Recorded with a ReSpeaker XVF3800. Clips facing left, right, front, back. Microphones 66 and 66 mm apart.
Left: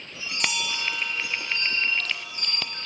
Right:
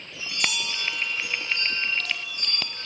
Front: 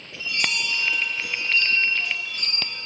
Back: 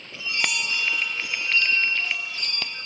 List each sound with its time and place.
0.1 s a chime: 125° left, 10 m